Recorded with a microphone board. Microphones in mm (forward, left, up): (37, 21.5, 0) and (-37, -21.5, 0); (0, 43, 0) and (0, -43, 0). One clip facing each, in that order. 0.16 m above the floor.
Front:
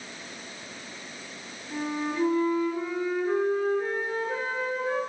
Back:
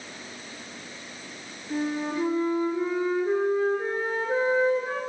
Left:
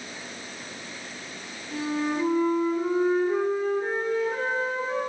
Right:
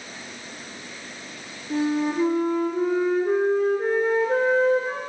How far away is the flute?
About 1.5 m.